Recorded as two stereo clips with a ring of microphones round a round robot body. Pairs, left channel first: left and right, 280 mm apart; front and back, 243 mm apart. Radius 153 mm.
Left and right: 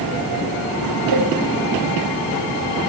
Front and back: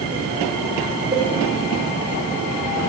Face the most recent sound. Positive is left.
turn(degrees=-110)